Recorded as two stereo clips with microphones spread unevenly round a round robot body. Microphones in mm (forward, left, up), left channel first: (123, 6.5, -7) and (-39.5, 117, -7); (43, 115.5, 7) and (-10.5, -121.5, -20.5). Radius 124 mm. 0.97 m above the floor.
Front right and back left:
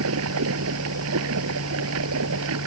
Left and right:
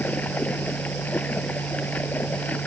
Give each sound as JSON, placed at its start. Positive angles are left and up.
{"t": 0.0, "sound": "running water", "azimuth_deg": 160}